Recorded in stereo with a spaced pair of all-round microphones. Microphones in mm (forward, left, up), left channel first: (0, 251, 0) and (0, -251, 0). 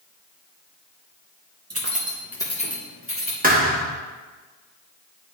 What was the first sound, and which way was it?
Keys jangling, 30° right (ahead or behind).